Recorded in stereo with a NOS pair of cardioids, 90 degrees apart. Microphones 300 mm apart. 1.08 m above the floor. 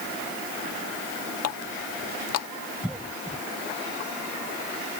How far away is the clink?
No clink in this recording.